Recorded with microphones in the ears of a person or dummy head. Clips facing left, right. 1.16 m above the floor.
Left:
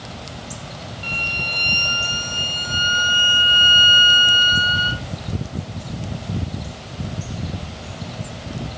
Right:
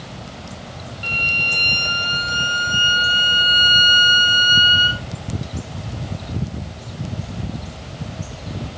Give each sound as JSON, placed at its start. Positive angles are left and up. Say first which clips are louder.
{"t": 1.0, "sound": "a violin", "louder": "right 2 dB", "side_deg": -20, "distance_m": 0.5}